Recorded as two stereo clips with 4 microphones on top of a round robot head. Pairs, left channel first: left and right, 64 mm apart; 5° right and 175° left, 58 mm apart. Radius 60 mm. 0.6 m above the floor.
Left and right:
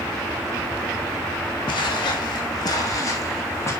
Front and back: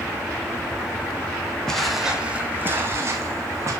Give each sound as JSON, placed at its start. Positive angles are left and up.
{"t": 1.7, "sound": "footsteps", "azimuth_deg": 70, "distance_m": 1.6}